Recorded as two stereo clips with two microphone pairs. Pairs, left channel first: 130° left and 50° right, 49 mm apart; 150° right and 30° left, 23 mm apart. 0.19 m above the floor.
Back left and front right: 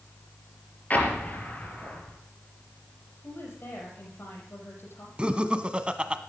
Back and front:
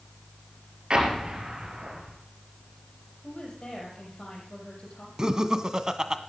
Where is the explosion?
75° left, 4 m.